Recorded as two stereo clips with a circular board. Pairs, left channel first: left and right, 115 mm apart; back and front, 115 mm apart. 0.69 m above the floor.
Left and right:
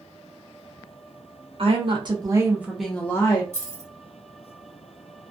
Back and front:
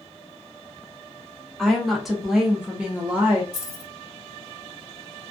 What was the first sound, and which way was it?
A woman speaking, 95° right.